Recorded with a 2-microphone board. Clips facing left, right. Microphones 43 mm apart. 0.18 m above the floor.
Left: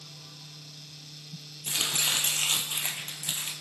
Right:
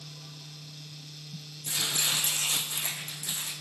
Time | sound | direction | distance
1.6 | chopping | 80° left | 1.0 m